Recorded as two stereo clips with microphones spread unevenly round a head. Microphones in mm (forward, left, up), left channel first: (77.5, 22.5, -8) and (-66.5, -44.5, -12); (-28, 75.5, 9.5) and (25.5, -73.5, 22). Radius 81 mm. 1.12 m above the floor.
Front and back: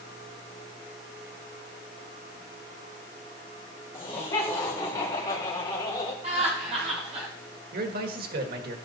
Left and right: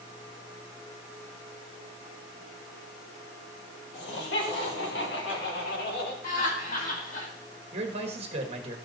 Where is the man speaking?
125° right, 1.7 m.